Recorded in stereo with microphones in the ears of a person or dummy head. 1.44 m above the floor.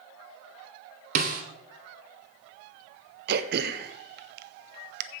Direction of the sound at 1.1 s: 50° right (ahead or behind).